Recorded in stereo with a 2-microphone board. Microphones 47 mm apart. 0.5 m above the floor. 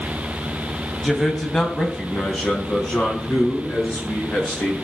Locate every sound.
1.0 s a man speaking: centre (ahead or behind), 2.5 m; by 4.8 s 20° left (ahead or behind), 5.5 m